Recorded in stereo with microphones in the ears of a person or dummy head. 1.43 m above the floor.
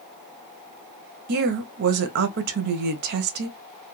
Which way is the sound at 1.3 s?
55° right (ahead or behind).